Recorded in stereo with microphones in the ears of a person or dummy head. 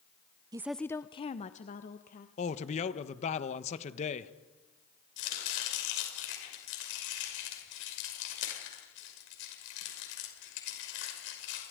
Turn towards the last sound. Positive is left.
turn(degrees=70)  # may be behind; listen again after turning